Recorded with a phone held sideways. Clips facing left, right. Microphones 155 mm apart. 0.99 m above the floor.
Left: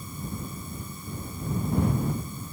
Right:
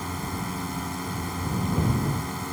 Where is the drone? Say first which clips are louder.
Right 5 dB; 75° right (ahead or behind).